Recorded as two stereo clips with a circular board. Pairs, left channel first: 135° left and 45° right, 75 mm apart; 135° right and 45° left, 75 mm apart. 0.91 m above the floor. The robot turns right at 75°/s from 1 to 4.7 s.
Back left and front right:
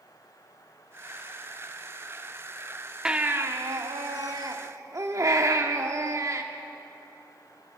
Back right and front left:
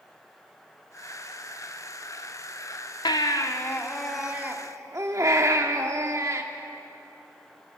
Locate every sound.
3.0 s a baby crying: 125° right, 1.4 m; by 6.4 s straight ahead, 1.4 m